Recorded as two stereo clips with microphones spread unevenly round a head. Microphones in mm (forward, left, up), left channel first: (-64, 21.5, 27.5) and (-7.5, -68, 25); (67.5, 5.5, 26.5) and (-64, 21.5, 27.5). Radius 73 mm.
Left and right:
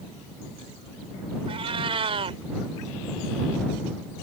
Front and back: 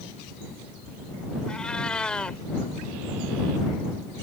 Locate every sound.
1.5 s a cat meowing: 90° right